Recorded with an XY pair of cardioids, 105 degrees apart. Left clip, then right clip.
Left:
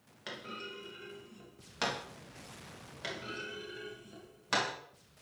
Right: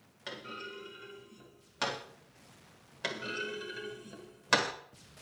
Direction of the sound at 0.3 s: Straight ahead.